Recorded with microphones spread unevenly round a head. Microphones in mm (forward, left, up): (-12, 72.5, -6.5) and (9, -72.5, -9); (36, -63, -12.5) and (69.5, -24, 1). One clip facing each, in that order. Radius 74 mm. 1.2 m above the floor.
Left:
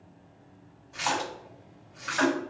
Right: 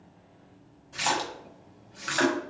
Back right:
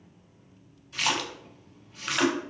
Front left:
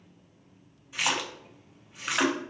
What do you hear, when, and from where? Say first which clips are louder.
0.9 s a splash: right 1 dB, back right 1 dB; 30° right, 0.9 m